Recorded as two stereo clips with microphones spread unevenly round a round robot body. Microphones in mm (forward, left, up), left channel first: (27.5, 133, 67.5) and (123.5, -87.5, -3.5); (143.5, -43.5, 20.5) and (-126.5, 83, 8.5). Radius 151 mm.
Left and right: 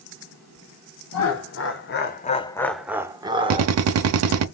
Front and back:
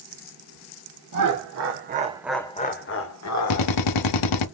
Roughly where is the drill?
Ahead right.